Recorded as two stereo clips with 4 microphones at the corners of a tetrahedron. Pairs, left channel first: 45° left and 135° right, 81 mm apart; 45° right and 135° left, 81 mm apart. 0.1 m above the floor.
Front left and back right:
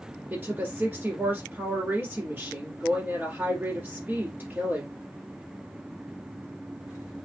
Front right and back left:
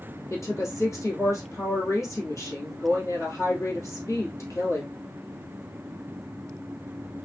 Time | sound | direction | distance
0.3 | a woman speaking | 75° right | 2 m